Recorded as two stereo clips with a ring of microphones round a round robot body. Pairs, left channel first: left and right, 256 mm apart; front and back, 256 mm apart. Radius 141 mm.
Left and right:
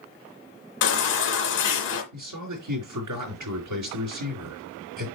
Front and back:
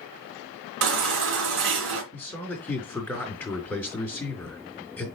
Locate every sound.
0.8 s a baby crying: 140° left, 2.5 m
2.1 s a man speaking: 85° right, 4.5 m